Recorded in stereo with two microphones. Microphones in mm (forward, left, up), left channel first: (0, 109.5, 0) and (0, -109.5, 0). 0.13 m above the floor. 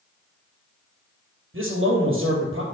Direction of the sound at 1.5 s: 60° right (ahead or behind).